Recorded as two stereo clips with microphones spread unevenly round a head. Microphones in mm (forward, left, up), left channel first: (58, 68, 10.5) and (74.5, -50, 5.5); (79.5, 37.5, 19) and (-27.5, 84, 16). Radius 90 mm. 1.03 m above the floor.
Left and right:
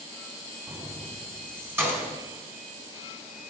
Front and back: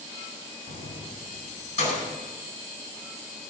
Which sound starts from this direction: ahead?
Keys jangling, at 0.7 s.